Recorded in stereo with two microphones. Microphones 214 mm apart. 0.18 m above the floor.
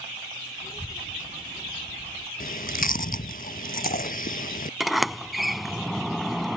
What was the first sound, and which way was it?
A child speaking, 20° left (ahead or behind).